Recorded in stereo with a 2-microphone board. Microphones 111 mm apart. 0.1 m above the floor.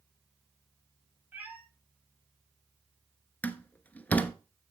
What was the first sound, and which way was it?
A cat meowing, 15° right (ahead or behind).